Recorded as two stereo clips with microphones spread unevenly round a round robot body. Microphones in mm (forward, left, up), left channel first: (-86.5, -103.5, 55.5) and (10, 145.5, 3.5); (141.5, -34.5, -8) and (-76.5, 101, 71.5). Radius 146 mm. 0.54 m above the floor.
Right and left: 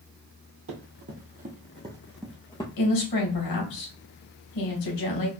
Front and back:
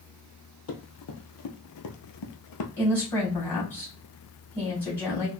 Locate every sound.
0.7 s running footsteps: 15° left, 1.3 m; by 2.7 s 45° right, 0.8 m
2.8 s a woman speaking: 110° right, 2.5 m